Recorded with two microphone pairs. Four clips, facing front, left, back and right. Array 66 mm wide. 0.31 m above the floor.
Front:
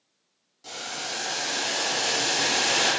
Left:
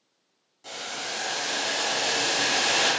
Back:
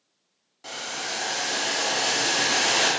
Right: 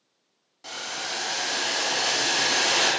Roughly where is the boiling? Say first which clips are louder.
Right 1 dB, back 2 dB; behind right.